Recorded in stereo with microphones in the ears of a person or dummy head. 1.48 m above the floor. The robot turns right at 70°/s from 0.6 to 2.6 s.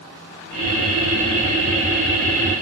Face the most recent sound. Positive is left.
No sound to turn to.